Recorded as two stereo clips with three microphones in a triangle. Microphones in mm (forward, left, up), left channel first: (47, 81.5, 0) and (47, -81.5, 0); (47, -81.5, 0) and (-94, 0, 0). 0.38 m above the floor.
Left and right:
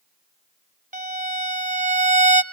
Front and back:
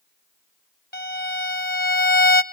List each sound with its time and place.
0.9 s a violin: 50° right, 0.9 m